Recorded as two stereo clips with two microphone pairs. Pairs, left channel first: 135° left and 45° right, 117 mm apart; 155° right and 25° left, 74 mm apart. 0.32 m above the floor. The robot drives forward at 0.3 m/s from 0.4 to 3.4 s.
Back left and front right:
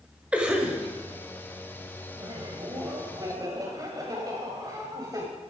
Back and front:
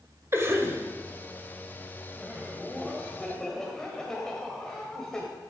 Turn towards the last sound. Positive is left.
turn(degrees=-80)